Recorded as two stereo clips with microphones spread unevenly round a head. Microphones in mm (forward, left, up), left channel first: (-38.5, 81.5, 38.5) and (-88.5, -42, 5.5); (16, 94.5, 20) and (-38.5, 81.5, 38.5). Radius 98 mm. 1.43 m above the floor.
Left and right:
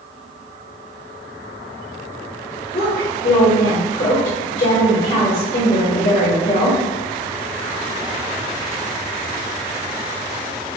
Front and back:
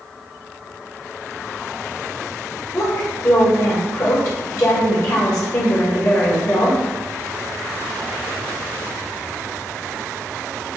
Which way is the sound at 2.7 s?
20° left.